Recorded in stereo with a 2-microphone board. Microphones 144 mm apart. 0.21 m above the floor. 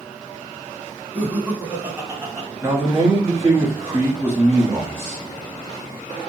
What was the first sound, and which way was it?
Laughter, 10° right (ahead or behind).